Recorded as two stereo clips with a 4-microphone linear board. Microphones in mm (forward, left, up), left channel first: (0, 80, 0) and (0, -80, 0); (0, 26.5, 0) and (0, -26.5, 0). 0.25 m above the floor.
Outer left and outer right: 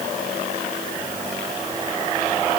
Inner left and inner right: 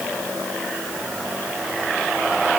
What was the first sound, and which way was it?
Only background noise.